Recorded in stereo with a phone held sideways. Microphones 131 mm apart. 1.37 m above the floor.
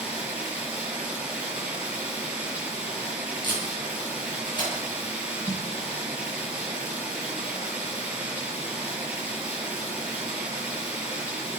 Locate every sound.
0.0 s running water: 10° right (ahead or behind), 6 m
3.4 s tape being pulled: 35° left (ahead or behind), 10 m
5.5 s a snare drum: 20° right (ahead or behind), 1.4 m